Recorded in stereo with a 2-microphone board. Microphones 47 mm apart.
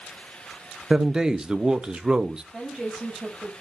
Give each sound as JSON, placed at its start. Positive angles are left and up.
{"t": 0.9, "sound": "a man speaking", "side_deg": -15, "distance_m": 0.8}
{"t": 2.5, "sound": "a woman speaking", "side_deg": 0, "distance_m": 6.5}